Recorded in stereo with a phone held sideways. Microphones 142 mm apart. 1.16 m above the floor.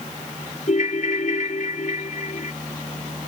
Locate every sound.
0.7 s a ringtone: 60° left (ahead or behind)